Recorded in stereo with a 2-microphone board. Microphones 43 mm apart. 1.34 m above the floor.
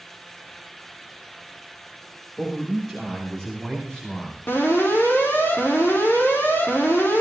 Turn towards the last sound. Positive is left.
turn(degrees=70)  # may be behind; listen again after turning